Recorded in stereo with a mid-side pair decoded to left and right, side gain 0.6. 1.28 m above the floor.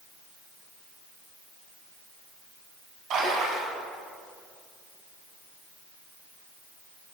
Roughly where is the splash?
Ahead right.